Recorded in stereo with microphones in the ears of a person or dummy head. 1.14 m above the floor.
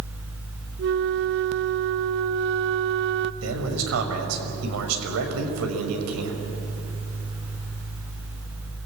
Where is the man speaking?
85° right, 5.5 m.